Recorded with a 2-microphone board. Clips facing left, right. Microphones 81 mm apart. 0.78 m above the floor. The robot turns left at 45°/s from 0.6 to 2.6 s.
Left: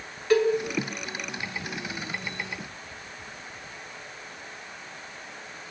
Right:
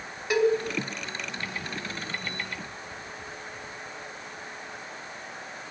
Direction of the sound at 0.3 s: 15° right (ahead or behind).